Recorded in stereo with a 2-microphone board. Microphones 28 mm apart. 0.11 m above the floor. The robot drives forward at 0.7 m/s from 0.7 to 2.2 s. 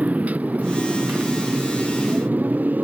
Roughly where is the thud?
I don't hear a thud.